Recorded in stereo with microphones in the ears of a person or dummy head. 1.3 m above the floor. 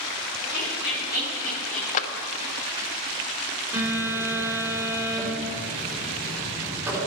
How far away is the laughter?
About 2.5 m.